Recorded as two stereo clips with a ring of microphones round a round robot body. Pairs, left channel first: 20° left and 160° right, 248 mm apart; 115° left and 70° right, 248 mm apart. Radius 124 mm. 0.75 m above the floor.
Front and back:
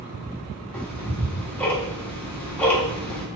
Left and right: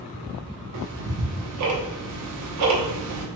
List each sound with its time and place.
0.7 s ticking: 60° right, 0.7 m